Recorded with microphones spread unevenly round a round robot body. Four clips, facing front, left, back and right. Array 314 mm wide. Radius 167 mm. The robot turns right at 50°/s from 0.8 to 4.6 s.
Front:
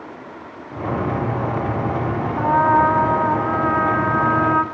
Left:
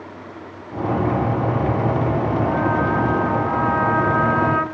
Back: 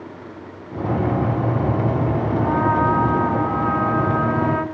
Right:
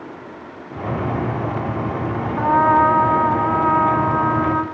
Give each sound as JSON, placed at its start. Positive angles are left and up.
{"t": 2.4, "sound": "a trumpet", "azimuth_deg": -115, "distance_m": 3.0}